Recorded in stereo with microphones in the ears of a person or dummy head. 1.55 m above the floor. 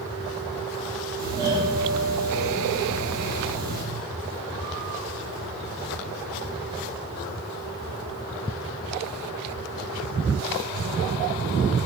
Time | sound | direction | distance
1.2 | a doorbell | 25° right (ahead or behind) | 0.9 m